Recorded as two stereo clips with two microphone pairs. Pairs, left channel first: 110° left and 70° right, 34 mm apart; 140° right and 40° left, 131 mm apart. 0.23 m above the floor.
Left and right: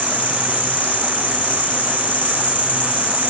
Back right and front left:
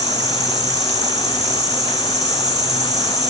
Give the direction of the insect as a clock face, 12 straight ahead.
10 o'clock.